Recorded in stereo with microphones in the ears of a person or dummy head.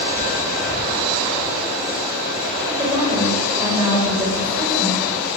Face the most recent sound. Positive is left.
turn(degrees=-15)  # may be behind; listen again after turning